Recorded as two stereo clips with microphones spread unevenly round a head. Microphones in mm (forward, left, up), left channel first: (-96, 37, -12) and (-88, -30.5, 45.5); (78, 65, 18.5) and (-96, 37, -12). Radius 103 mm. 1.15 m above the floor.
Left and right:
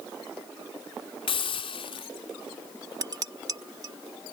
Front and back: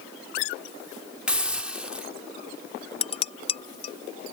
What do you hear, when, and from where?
1.3 s a hiss: 100° left
3.0 s dishes clattering: 50° right